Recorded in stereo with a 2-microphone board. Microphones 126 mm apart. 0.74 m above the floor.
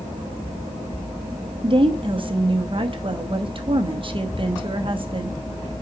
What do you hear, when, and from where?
1.6 s a woman speaking: 45° right (ahead or behind), 1.0 m